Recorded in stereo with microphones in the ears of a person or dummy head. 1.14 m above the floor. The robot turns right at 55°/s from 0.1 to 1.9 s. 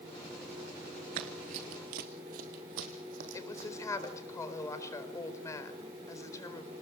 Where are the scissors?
I don't hear scissors.